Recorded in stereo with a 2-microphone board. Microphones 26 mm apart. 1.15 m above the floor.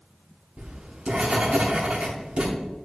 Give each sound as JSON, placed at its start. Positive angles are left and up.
{"t": 0.6, "sound": "writing", "side_deg": -45, "distance_m": 4.0}